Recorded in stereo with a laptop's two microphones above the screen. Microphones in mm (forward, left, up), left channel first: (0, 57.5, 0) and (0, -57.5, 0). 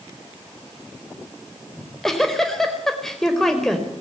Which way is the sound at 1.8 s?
5° left (ahead or behind).